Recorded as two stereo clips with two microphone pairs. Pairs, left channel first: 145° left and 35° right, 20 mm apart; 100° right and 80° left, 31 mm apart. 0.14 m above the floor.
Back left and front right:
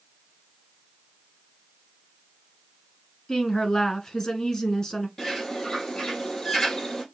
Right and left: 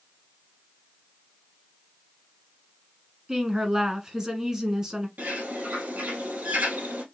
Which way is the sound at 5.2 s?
80° left.